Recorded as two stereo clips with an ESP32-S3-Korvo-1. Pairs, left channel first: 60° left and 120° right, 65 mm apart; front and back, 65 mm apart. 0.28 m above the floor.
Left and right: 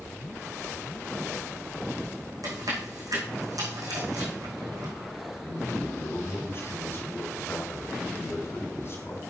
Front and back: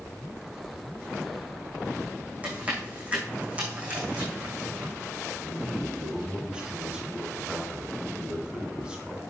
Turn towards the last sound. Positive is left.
turn(degrees=100)